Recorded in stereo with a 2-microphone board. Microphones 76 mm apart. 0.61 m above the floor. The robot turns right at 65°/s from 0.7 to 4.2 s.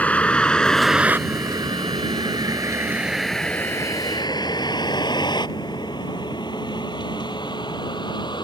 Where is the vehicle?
20° left (ahead or behind); by 8.4 s 80° left.